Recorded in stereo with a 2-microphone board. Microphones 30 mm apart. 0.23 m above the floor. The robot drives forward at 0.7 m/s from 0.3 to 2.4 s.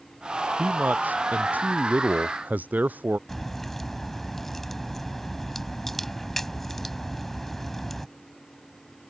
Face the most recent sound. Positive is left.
turn(degrees=10)  # may be behind; listen again after turning